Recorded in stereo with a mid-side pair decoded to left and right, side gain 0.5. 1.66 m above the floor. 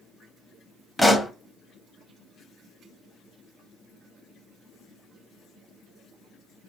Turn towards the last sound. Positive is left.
turn(degrees=5)